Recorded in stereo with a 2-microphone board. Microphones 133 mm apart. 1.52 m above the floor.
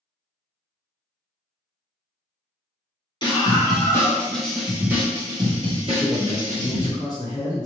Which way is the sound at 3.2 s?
35° left (ahead or behind).